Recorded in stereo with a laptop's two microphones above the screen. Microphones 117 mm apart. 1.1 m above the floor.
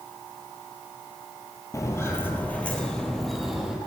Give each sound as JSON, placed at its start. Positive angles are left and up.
{"t": 1.7, "sound": "footsteps", "side_deg": 30, "distance_m": 1.4}